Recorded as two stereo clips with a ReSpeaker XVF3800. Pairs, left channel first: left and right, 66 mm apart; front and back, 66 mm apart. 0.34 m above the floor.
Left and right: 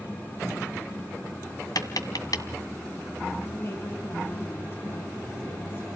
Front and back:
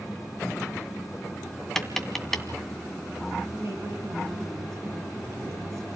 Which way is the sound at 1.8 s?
85° left.